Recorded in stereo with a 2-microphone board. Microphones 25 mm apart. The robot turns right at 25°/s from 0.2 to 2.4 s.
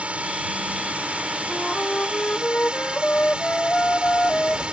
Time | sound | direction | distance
0.0 | a drone | 105° right | ?
1.5 | a flute | 45° left (ahead or behind) | ?